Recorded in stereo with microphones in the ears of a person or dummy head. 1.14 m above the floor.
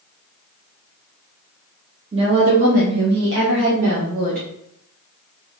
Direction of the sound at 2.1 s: 30° right (ahead or behind).